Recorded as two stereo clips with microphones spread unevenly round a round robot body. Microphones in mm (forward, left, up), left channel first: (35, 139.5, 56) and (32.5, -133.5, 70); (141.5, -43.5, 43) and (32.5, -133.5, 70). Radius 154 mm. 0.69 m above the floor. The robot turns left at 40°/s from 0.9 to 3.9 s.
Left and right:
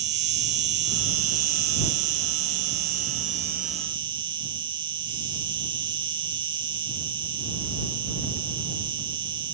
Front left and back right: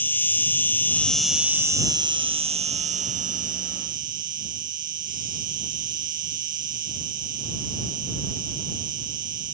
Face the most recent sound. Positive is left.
turn(degrees=-165)